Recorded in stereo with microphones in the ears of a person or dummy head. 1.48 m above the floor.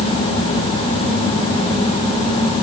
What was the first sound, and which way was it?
Only background noise.